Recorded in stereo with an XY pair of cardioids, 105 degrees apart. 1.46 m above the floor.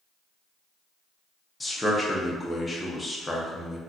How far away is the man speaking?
About 0.9 m.